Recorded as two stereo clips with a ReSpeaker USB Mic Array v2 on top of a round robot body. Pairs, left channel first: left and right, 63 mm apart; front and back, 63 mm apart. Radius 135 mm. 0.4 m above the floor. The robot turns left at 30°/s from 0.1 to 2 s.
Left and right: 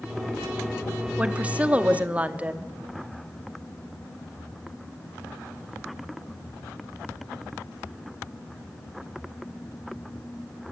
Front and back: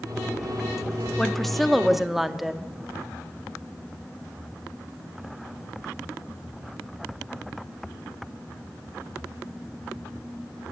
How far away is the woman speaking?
About 1.2 m.